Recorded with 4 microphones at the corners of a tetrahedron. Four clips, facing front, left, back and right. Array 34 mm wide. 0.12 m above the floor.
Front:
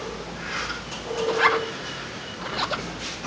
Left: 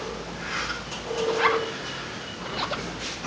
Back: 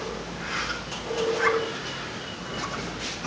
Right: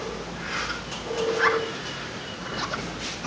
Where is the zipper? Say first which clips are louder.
Even, front 4 dB; 25° left, 0.6 m.